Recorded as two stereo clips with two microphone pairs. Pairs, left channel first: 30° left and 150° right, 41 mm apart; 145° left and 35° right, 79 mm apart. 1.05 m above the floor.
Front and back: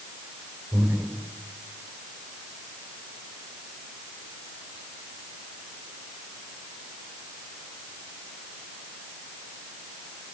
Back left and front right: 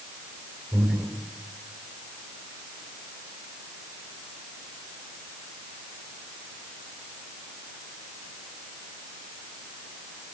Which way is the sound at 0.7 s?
115° right.